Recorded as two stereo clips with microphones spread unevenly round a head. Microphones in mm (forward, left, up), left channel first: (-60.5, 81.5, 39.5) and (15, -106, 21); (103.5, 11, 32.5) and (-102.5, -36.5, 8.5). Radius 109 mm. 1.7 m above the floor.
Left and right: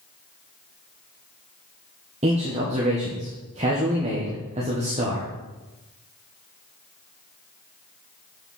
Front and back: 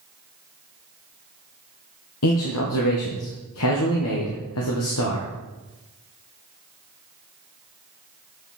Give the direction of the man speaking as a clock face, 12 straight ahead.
12 o'clock.